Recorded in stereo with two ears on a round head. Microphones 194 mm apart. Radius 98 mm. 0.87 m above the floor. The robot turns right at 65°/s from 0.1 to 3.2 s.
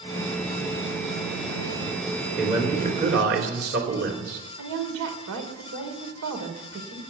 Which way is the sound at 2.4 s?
Straight behind.